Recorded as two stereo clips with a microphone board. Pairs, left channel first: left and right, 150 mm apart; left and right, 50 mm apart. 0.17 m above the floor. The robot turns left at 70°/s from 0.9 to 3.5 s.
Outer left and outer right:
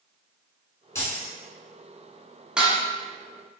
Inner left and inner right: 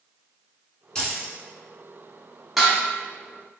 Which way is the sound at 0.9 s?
20° left (ahead or behind).